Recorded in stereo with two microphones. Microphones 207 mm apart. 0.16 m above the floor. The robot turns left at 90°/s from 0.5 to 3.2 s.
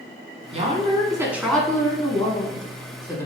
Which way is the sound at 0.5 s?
95° right.